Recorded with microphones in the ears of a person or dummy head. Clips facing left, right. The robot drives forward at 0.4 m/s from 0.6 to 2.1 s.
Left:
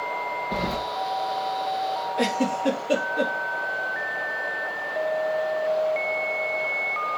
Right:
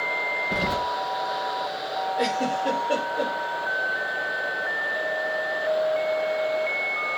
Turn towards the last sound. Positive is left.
turn(degrees=30)  # may be behind; listen again after turning